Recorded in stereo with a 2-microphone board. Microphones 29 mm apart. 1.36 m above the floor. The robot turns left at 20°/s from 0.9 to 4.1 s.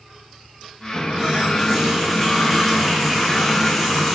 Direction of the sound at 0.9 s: 135° right.